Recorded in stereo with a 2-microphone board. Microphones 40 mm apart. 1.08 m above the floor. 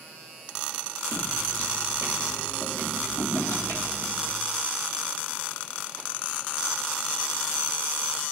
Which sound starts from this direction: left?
Footsteps, at 1.1 s.